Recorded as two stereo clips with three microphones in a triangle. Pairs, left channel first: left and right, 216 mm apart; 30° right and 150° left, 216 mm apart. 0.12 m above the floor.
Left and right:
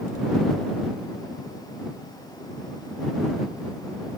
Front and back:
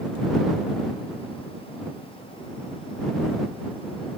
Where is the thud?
I don't hear a thud.